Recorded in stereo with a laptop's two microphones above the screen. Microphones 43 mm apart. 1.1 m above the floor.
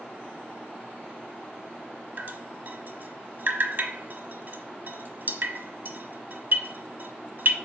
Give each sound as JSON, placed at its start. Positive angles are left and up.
{"t": 2.2, "sound": "dripping", "side_deg": -50, "distance_m": 1.2}